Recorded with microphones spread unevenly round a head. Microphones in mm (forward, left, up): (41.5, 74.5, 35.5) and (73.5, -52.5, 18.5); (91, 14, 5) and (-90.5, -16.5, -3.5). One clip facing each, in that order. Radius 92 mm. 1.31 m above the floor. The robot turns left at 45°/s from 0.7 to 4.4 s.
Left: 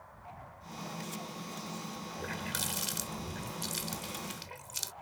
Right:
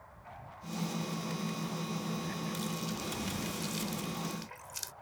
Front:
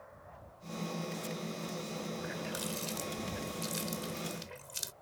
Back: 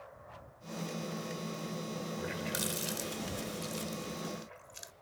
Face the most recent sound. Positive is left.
turn(degrees=45)